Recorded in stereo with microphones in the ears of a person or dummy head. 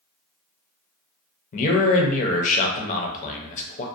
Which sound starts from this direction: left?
A man speaking, at 1.5 s.